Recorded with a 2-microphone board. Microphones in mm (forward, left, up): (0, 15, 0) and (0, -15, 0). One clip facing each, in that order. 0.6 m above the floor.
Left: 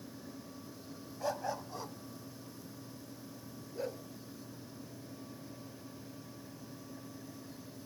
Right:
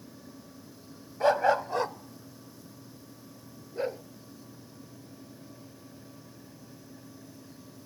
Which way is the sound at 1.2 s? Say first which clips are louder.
Right 14 dB; 55° right (ahead or behind).